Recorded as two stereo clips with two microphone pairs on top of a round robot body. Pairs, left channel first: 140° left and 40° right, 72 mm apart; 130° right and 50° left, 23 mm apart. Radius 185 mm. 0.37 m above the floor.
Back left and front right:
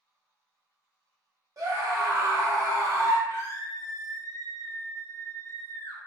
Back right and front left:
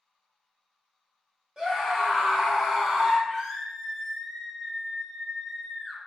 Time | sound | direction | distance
1.6 | a scream | 10° right | 1.7 m
3.3 | a scream | 105° left | 1.2 m